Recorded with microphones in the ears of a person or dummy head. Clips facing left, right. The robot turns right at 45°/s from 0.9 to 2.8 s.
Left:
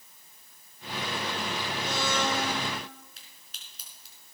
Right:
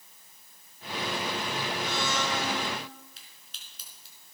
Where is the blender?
20° left, 8.5 m; by 2.6 s 60° left, 8.5 m.